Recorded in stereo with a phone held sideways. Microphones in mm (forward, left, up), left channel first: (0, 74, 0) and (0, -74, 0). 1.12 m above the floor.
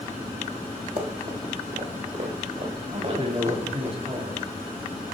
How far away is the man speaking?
About 2 m.